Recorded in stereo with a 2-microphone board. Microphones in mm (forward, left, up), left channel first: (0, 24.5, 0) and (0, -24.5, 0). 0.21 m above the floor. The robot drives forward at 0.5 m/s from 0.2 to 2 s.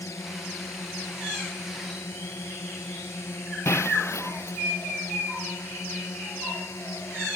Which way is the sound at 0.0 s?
70° left (ahead or behind).